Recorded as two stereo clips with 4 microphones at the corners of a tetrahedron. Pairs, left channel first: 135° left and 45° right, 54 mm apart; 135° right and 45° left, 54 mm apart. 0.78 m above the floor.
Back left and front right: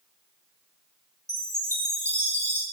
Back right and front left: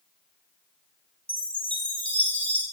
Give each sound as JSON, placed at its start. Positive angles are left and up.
{"t": 1.3, "sound": "a chime", "azimuth_deg": -65, "distance_m": 1.4}